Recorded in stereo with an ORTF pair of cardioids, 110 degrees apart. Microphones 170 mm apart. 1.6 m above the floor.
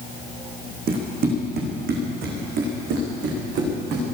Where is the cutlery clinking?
I don't hear cutlery clinking.